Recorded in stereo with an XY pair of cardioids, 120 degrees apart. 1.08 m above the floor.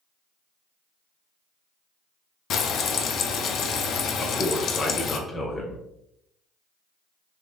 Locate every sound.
2.5 s frying: 60° left, 0.5 m
4.2 s a man speaking: 20° left, 0.7 m